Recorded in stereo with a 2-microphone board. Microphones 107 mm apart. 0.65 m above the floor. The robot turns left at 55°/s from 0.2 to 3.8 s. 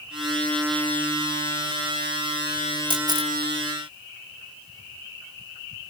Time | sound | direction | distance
2.9 | a camera shutter | 45° right (ahead or behind) | 1.0 m